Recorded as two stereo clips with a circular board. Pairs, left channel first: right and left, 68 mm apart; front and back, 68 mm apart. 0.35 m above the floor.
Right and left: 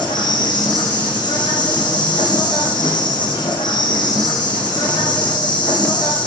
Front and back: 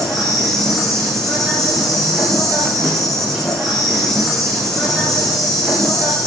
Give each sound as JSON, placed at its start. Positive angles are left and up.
{"t": 0.0, "sound": "an insect", "azimuth_deg": -85, "distance_m": 9.0}